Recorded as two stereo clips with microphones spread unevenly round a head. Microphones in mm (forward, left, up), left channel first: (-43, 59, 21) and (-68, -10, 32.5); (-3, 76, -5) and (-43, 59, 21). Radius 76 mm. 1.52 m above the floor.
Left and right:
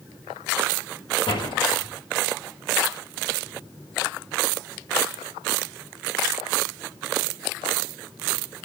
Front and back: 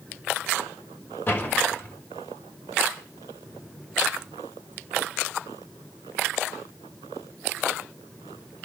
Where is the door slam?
70° left, 5.5 m.